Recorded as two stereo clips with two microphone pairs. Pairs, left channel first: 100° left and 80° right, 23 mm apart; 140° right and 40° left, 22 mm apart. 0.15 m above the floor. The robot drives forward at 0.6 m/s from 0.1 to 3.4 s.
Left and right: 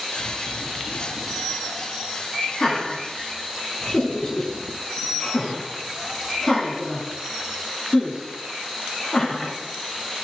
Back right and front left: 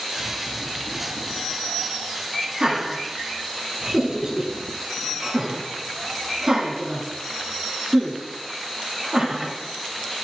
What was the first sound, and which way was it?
Laughter, 40° left.